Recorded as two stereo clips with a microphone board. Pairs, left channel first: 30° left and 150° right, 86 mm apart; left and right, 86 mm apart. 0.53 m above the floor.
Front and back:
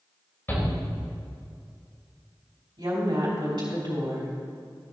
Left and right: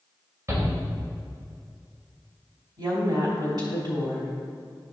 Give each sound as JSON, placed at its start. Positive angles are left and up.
{"t": 0.5, "sound": "a shout", "azimuth_deg": -35, "distance_m": 2.5}
{"t": 2.8, "sound": "a woman speaking", "azimuth_deg": -125, "distance_m": 3.0}